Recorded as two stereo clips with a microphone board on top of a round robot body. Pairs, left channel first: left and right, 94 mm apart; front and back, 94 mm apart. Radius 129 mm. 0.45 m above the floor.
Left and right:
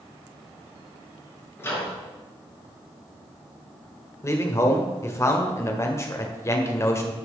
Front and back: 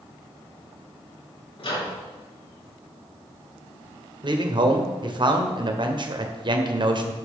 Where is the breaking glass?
I don't hear breaking glass.